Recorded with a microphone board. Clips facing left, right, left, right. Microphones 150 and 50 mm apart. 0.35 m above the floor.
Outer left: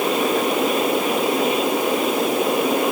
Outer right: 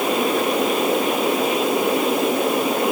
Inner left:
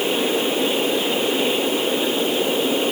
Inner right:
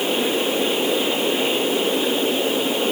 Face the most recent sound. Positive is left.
No sound to turn to.